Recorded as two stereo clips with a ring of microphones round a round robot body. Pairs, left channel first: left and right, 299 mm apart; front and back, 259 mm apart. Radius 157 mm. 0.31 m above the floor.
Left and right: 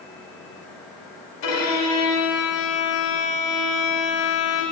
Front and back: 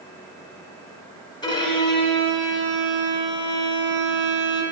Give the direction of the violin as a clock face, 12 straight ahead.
10 o'clock.